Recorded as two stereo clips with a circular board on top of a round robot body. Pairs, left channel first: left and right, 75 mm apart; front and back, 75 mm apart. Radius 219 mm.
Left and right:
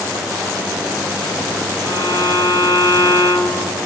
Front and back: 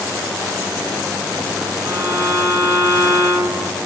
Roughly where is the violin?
Behind right.